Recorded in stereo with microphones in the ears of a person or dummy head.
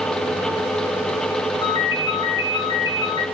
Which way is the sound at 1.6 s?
20° left (ahead or behind).